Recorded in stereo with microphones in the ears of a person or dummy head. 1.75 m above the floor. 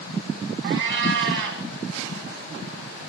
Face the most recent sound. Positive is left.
turn(degrees=-70)  # may be behind; listen again after turning